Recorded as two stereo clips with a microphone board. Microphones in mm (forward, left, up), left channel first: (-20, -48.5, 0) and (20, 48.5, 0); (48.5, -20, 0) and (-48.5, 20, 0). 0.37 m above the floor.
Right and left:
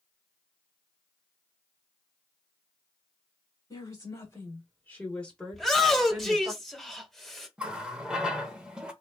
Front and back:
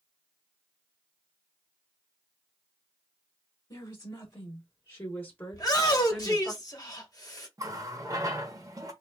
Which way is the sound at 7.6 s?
140° left.